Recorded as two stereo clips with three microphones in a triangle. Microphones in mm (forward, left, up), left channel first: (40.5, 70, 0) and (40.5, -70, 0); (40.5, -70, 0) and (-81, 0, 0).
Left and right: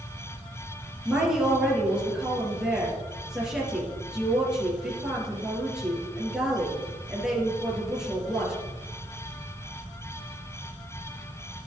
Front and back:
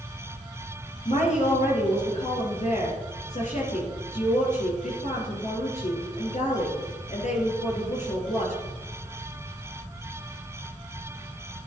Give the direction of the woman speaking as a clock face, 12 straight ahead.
12 o'clock.